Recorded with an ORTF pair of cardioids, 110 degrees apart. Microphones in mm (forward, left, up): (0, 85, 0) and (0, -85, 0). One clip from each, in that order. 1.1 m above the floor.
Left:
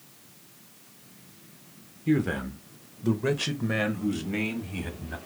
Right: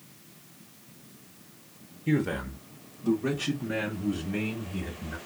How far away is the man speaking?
About 0.5 m.